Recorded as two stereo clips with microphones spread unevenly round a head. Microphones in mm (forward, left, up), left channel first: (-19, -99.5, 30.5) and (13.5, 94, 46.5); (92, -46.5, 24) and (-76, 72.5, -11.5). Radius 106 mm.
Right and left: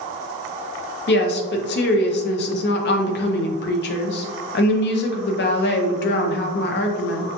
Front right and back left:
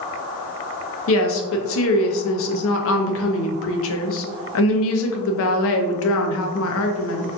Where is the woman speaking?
65° right, 0.6 m.